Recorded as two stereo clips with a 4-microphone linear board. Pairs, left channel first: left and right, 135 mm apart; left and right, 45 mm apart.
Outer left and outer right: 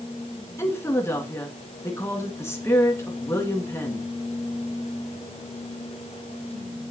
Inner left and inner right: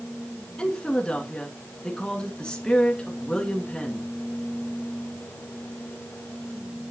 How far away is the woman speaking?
About 2.5 m.